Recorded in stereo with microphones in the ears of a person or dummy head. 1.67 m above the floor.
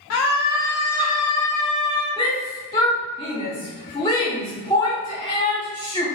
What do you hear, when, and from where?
0.1 s a scream: 80° left, 0.6 m; by 2.1 s 5° left (ahead or behind), 2 m
2.2 s a shout: 20° left (ahead or behind), 1.2 m